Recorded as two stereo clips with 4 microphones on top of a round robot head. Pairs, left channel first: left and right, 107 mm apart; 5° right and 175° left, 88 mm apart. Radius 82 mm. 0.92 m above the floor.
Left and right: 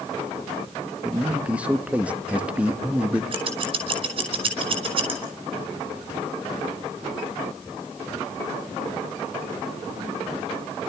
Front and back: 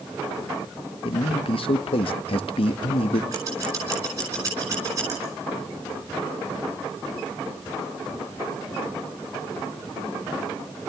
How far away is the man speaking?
About 1.0 m.